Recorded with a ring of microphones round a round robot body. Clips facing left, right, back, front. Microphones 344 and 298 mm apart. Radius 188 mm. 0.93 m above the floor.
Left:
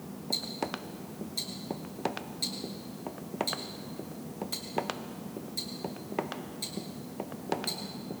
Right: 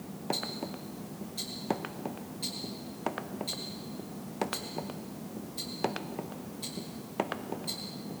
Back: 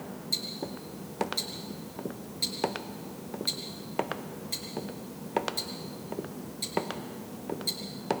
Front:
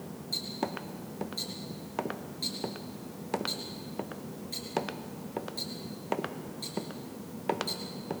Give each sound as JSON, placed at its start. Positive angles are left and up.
{"t": 0.3, "sound": "ticking", "azimuth_deg": 135, "distance_m": 5.5}